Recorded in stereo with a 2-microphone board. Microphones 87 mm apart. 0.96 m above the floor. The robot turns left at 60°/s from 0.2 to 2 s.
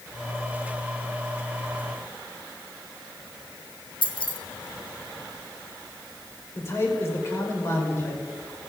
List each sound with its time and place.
4.0 s keys jangling: 75° left (ahead or behind), 1.2 m
6.5 s a man speaking: 30° left (ahead or behind), 3 m